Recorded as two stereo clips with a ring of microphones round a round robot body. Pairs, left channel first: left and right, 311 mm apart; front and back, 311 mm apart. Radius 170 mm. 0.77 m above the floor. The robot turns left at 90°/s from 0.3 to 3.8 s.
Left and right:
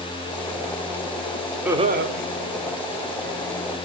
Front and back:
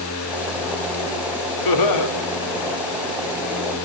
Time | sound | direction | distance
1.6 | laughter | 5° right | 2.5 m